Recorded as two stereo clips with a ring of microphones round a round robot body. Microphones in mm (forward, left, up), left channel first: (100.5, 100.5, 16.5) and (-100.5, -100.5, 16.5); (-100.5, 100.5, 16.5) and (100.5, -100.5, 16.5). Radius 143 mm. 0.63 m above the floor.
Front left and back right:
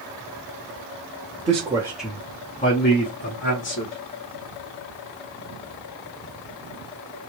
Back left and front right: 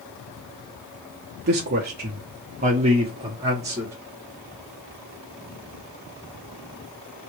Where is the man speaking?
80° right, 0.8 m; by 4.0 s 35° left, 1.3 m.